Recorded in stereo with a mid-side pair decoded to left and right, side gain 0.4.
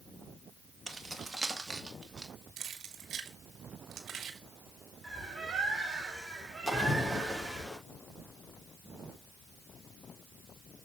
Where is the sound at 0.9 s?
20° right, 1.7 m.